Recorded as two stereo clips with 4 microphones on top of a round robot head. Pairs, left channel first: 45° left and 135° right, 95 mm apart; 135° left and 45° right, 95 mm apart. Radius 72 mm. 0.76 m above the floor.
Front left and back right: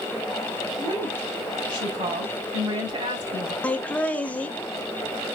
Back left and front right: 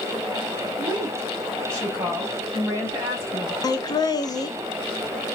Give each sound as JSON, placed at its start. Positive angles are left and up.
{"t": 0.8, "sound": "a woman speaking", "azimuth_deg": -110, "distance_m": 3.0}
{"t": 3.6, "sound": "laughter", "azimuth_deg": 115, "distance_m": 0.8}